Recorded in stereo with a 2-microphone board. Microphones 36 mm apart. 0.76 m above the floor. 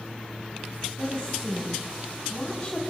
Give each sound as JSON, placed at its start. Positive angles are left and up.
{"t": 1.0, "sound": "a woman speaking", "side_deg": 0, "distance_m": 5.0}